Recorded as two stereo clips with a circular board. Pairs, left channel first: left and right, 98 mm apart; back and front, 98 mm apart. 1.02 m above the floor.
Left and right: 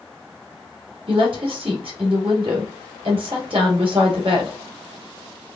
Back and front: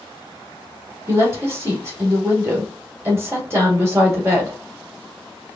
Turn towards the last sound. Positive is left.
turn(degrees=-65)